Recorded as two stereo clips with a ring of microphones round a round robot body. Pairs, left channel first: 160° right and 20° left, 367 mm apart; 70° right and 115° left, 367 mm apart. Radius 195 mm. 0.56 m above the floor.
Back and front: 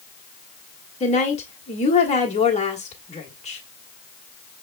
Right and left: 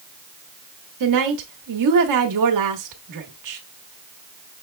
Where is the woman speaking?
135° left, 1.3 m.